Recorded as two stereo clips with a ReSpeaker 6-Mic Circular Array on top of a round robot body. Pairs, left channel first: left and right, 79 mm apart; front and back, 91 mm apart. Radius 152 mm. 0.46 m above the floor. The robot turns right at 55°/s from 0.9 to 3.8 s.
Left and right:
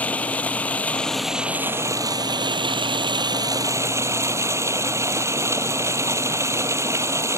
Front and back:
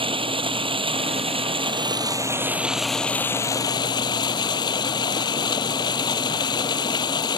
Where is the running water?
160° left; by 7.4 s 40° right.